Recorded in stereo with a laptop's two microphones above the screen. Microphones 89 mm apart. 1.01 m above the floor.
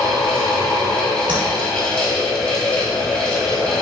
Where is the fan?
10° left (ahead or behind), 1.6 m.